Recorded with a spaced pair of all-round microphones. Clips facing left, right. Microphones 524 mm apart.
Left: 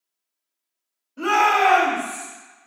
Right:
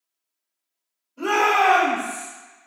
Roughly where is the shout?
Left.